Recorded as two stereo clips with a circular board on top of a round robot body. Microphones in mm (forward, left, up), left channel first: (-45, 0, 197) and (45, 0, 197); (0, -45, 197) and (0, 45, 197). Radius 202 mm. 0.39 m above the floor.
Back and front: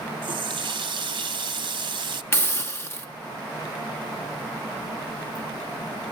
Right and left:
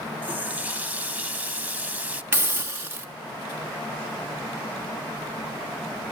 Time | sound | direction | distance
0.2 | a running tap | 20° left | 0.8 m
2.3 | a hiss | 135° left | 1.7 m